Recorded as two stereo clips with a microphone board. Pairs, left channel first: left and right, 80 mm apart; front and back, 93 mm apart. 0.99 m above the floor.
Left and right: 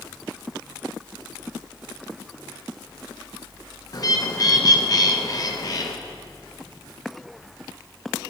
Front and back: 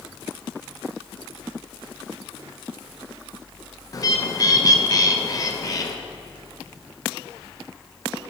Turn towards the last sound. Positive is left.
turn(degrees=50)